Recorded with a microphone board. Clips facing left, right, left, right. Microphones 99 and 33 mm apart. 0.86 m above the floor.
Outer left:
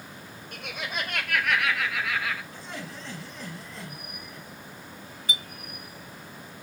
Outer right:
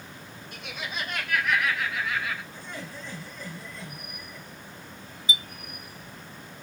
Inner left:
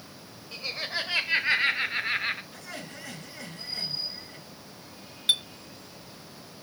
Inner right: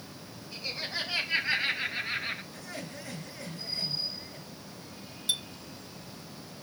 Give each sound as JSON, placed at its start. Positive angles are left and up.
{"t": 0.5, "sound": "laughter", "side_deg": 55, "distance_m": 4.5}
{"t": 2.5, "sound": "laughter", "side_deg": 85, "distance_m": 9.0}
{"t": 5.3, "sound": "a clink", "side_deg": 55, "distance_m": 0.9}